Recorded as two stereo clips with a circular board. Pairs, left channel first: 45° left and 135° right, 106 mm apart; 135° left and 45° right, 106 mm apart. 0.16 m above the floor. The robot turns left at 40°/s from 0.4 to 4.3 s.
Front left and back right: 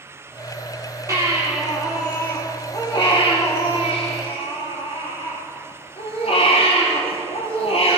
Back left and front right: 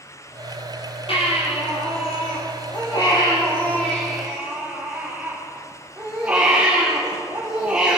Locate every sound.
1.1 s a baby crying: 165° left, 4 m; by 8.0 s 35° left, 4 m